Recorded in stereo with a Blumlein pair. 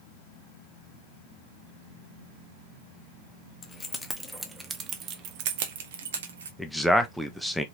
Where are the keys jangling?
20° left, 1.0 m; by 6.5 s 65° right, 1.4 m.